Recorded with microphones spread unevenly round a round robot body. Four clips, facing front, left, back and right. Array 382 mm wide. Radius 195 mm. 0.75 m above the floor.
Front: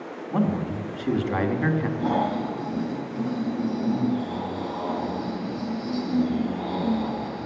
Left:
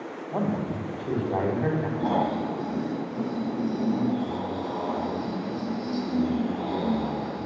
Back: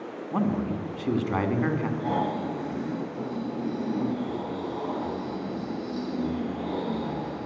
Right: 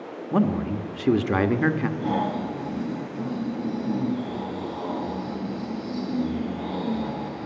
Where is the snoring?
50° left, 4.5 m.